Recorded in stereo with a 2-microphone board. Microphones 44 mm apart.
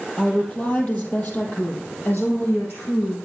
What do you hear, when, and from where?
0.2 s a woman speaking: 25° left (ahead or behind), 2.5 m; by 3.2 s 60° left (ahead or behind), 4.5 m